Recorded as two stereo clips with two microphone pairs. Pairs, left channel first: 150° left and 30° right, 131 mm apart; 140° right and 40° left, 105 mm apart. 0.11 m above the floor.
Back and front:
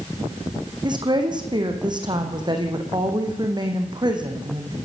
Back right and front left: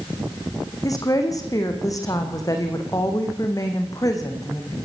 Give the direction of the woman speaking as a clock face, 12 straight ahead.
3 o'clock.